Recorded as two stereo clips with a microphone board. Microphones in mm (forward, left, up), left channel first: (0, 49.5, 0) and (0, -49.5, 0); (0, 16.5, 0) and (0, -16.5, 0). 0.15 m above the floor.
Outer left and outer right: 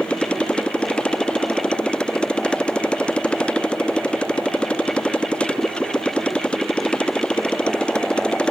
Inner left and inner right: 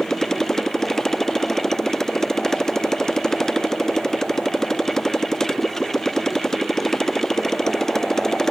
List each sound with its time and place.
0.0 s a motorcycle: 10° left (ahead or behind)